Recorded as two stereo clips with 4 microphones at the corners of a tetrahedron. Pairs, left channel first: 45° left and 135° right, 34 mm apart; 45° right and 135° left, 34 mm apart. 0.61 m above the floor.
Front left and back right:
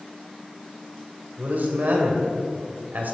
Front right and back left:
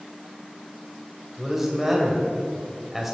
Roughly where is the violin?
No violin in this recording.